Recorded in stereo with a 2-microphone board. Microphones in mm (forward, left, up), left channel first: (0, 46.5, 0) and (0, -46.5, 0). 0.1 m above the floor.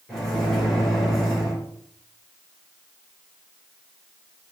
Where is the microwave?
5° left (ahead or behind), 1.5 m.